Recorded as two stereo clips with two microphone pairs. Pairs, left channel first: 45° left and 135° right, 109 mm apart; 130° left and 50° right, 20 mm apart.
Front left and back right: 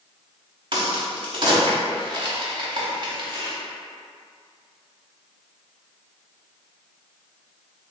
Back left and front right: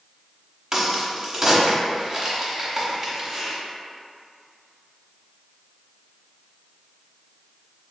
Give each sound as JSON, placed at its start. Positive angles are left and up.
{"t": 0.7, "sound": "a crack", "azimuth_deg": -105, "distance_m": 0.8}